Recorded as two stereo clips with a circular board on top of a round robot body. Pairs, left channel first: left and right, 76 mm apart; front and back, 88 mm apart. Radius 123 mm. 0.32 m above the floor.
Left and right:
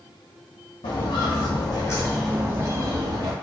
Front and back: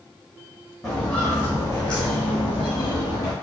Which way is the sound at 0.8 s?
85° left.